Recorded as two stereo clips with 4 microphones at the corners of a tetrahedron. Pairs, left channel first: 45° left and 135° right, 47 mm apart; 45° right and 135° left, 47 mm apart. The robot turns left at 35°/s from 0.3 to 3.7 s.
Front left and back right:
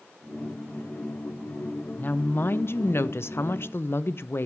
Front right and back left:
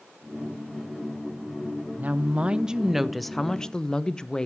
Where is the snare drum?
No snare drum in this recording.